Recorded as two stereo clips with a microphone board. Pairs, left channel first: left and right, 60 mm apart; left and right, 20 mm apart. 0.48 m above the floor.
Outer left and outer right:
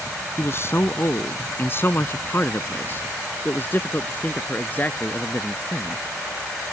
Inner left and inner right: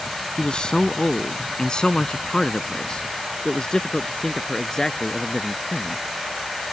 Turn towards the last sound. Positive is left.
turn(degrees=30)  # may be behind; listen again after turning